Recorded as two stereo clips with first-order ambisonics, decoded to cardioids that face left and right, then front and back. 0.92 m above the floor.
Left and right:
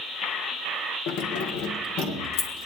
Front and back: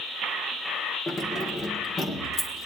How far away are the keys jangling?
About 1.0 m.